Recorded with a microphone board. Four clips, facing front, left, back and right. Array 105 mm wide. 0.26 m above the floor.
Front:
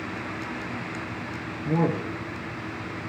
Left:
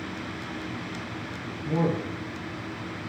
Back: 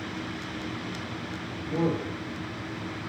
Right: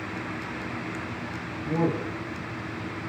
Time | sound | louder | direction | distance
1.6 | a man speaking | even, front 3 dB | 20° left | 3 m